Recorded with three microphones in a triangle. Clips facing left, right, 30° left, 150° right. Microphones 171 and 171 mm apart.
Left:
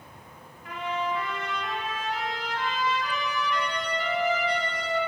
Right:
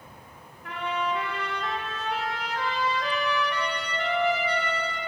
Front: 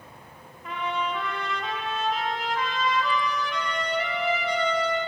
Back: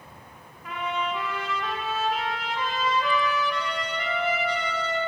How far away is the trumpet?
About 1.2 m.